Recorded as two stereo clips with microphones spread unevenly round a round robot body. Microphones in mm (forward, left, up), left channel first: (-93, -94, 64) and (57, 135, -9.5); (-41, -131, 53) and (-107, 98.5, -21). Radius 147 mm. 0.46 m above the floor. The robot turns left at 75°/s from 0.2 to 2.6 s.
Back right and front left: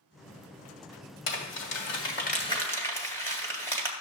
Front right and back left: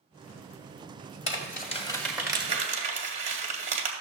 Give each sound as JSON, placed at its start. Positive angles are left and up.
{"t": 1.3, "sound": "crumpling", "azimuth_deg": -115, "distance_m": 1.9}